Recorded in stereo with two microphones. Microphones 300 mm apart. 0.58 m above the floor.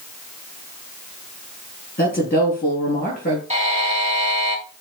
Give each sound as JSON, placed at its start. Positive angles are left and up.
{"t": 2.0, "sound": "a woman speaking", "side_deg": 30, "distance_m": 6.0}
{"t": 3.5, "sound": "a buzzer", "side_deg": -25, "distance_m": 1.5}